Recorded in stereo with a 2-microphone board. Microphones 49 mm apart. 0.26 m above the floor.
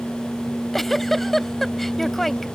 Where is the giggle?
5° left (ahead or behind).